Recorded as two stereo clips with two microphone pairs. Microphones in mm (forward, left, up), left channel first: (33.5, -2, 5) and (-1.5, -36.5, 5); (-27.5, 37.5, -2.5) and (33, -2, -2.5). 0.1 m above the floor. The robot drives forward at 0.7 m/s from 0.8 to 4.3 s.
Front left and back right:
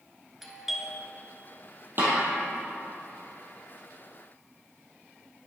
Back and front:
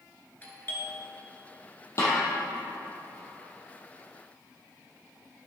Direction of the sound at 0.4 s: 145° left.